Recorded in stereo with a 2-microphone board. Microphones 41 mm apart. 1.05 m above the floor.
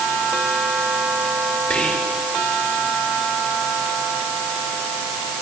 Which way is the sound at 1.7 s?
25° left (ahead or behind).